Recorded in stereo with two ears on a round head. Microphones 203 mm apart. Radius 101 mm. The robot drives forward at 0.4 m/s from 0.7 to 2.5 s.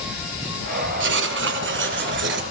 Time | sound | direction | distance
1.0 | writing | 55° right (ahead or behind) | 2 m